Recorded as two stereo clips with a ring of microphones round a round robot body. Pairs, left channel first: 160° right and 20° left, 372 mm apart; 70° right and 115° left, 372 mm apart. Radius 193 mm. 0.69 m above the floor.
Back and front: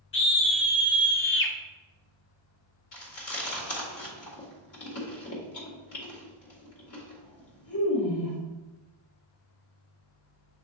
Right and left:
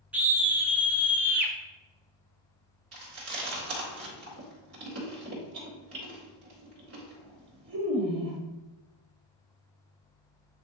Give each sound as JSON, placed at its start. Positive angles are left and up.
{"t": 0.1, "sound": "a scream", "azimuth_deg": -165, "distance_m": 1.2}
{"t": 2.9, "sound": "chewing", "azimuth_deg": 160, "distance_m": 2.5}